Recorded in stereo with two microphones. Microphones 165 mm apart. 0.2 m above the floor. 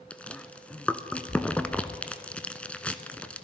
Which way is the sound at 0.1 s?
5° left (ahead or behind).